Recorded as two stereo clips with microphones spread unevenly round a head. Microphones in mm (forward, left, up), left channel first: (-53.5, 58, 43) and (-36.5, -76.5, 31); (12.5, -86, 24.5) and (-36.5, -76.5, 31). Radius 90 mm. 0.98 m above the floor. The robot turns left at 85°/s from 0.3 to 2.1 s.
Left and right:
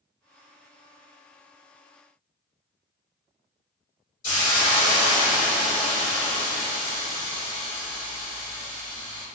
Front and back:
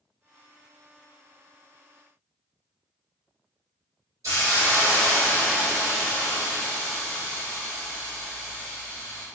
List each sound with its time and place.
4.2 s a hiss: 120° left, 1.9 m